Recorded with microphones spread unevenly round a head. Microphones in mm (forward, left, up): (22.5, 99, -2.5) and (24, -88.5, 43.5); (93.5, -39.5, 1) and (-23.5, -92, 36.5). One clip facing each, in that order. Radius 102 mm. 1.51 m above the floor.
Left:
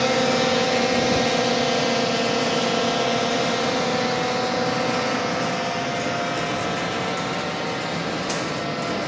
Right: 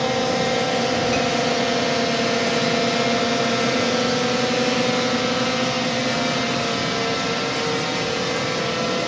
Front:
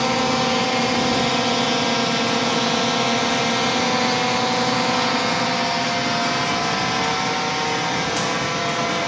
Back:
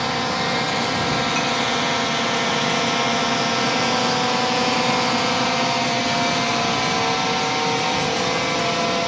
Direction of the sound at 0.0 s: 25° left.